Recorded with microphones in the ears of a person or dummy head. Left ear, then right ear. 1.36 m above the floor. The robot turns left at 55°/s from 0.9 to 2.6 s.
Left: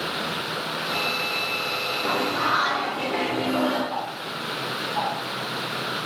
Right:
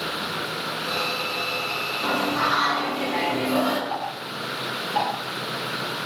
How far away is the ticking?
About 0.7 m.